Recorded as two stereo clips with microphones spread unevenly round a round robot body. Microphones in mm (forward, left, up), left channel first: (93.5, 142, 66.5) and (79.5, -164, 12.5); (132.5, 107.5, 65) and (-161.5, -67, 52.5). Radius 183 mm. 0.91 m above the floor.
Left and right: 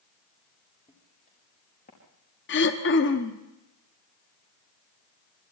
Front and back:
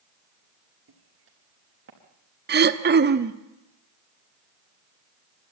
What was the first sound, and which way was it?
Footsteps, 160° left.